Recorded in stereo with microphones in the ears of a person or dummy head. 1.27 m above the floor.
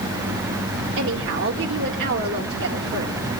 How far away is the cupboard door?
No cupboard door in this recording.